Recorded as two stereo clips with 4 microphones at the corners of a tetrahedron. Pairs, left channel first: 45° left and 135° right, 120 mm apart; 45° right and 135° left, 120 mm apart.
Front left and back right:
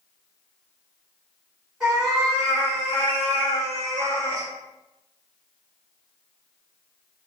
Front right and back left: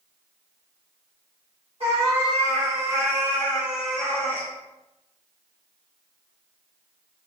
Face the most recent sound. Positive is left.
turn(degrees=20)